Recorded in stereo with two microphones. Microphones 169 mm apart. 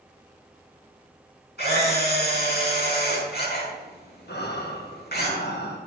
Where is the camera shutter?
75° left (ahead or behind), 5.5 m.